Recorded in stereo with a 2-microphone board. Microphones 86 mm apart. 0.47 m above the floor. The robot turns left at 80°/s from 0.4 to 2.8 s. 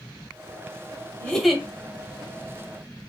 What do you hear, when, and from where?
1.2 s a giggle: 20° left, 1.5 m; by 1.6 s 15° right, 1.5 m